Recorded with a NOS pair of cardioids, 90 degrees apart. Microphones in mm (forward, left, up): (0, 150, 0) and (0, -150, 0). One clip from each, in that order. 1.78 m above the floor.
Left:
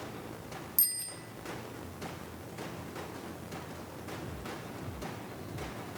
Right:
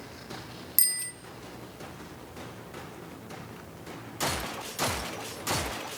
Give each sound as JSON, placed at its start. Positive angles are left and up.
{"t": 0.8, "sound": "a bicycle bell", "azimuth_deg": -45, "distance_m": 2.5}